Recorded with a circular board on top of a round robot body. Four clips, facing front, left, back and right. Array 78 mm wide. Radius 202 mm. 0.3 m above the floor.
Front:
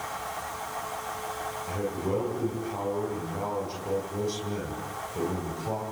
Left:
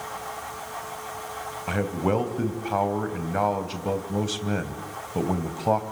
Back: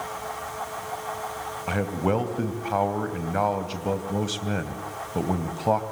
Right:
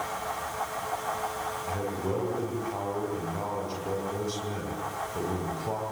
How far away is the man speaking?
About 3.5 m.